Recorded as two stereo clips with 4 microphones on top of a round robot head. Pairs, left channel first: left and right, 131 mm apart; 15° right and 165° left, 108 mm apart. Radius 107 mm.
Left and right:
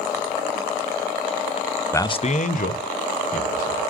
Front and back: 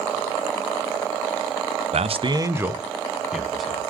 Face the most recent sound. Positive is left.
turn(degrees=75)